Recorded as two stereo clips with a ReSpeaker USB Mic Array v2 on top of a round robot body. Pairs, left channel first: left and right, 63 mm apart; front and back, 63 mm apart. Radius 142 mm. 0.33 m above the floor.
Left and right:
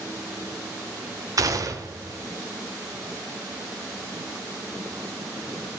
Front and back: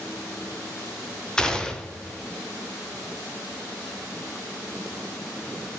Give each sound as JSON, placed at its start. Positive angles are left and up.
{"t": 1.4, "sound": "a gunshot", "azimuth_deg": -75, "distance_m": 1.2}